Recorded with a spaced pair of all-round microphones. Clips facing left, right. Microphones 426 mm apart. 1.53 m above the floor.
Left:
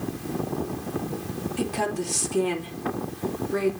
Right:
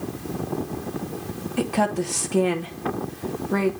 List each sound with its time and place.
1.6 s a woman speaking: 70° right (ahead or behind), 1.0 m